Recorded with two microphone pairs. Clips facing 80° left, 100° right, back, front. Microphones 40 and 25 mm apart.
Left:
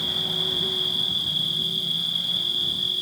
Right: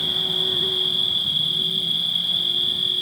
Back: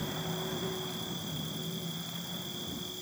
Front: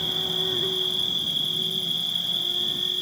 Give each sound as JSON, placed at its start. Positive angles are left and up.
{"t": 0.0, "sound": "an insect", "azimuth_deg": -35}